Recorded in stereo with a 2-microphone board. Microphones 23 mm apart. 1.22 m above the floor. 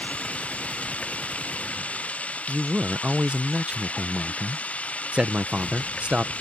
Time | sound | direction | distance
0.0 | running water | 70° left (ahead or behind) | ?
2.5 | a man speaking | 55° right (ahead or behind) | ?